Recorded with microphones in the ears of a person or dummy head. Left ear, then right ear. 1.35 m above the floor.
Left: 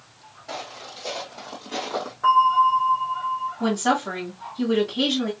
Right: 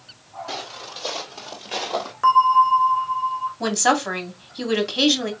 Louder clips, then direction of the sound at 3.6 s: Right 4 dB; 60° right (ahead or behind).